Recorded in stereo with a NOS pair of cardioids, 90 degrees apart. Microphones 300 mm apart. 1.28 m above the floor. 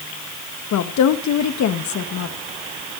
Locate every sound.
0.7 s a woman speaking: 65° left, 1.5 m